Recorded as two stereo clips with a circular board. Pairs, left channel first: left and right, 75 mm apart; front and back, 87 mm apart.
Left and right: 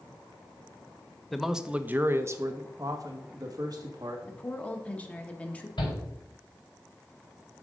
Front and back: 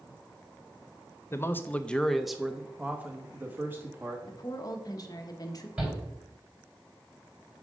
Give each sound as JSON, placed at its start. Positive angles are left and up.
{"t": 1.3, "sound": "a man speaking", "azimuth_deg": 0, "distance_m": 0.6}
{"t": 4.3, "sound": "a woman speaking", "azimuth_deg": 20, "distance_m": 1.1}
{"t": 5.8, "sound": "a shout", "azimuth_deg": 110, "distance_m": 4.0}